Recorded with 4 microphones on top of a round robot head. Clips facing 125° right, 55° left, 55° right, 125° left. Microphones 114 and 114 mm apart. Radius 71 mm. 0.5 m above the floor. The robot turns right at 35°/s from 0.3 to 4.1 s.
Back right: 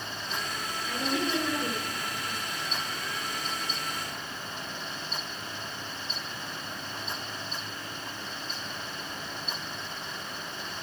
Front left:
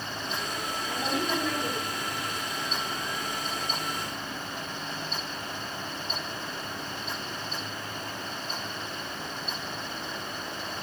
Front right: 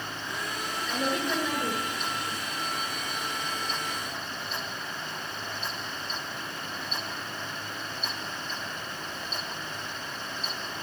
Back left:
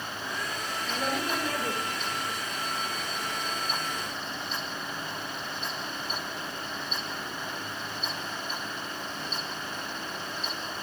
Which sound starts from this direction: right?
A woman speaking, at 0.8 s.